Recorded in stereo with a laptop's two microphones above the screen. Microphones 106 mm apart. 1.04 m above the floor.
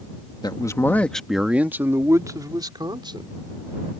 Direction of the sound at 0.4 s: 40° left (ahead or behind).